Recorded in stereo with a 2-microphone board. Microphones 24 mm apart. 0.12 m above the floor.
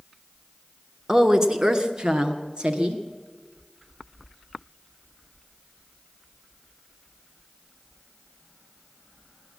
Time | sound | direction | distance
1.1 | a woman speaking | 25° right (ahead or behind) | 1.1 m